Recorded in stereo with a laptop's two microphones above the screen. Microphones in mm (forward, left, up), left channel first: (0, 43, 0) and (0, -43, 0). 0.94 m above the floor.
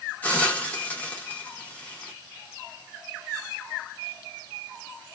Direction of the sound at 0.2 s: 20° left (ahead or behind).